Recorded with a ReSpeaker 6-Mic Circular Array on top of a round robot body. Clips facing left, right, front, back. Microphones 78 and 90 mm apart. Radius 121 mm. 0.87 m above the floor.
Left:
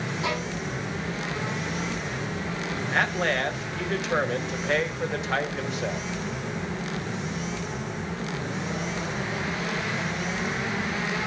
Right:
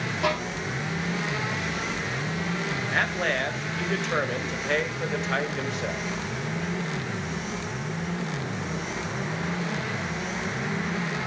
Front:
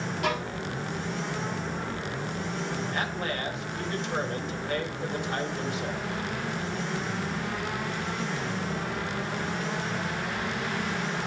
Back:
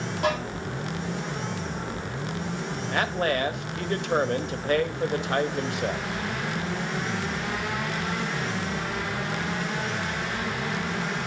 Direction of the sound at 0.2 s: 125° right.